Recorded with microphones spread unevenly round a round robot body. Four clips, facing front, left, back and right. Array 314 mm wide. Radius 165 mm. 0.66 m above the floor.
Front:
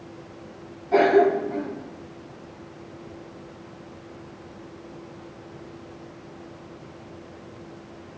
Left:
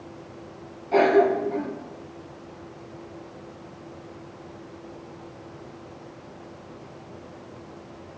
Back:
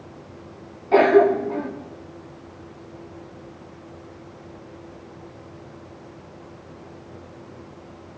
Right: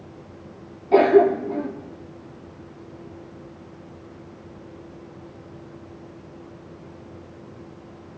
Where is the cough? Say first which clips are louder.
Right 4 dB, back 3 dB; 100° right, 1.5 m.